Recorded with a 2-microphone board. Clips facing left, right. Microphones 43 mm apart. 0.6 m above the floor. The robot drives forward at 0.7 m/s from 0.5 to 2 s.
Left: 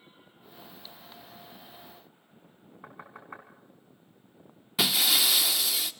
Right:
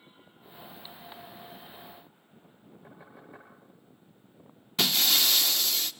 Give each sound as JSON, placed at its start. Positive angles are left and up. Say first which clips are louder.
{"t": 2.8, "sound": "knocking", "louder": "left 6 dB", "side_deg": 70, "distance_m": 3.5}
{"t": 4.8, "sound": "breaking glass", "louder": "even", "side_deg": 5, "distance_m": 0.6}